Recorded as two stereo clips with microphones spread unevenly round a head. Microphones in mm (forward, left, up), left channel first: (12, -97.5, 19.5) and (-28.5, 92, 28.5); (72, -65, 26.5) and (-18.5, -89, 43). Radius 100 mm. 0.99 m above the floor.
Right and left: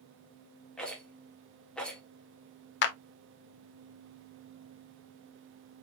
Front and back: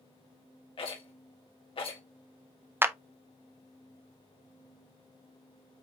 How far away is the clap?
About 0.6 m.